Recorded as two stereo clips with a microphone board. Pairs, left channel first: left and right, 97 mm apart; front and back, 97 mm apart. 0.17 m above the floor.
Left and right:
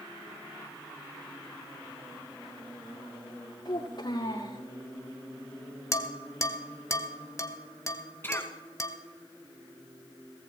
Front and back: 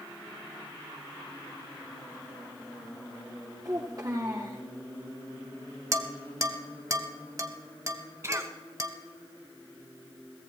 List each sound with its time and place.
3.6 s a child speaking: 130° left, 5.5 m
5.9 s dishes clattering: 135° left, 1.3 m
8.2 s a cough: 140° left, 1.7 m